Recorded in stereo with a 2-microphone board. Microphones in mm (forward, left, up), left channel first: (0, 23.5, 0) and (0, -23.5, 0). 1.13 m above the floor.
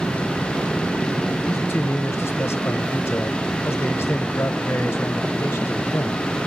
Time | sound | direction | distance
1.4 | a man speaking | 50° left (ahead or behind) | 0.8 m